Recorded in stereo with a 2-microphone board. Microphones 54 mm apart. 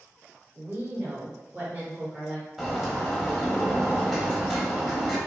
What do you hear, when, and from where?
0.6 s a woman speaking: 50° right (ahead or behind), 1.6 m; by 2.5 s 10° right (ahead or behind), 1.1 m
2.6 s a bird: 5° right (ahead or behind), 1.1 m